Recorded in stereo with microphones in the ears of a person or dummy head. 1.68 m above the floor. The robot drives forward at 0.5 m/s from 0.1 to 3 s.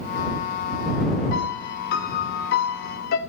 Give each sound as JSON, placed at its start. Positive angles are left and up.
{"t": 1.3, "sound": "a piano", "side_deg": 60, "distance_m": 2.0}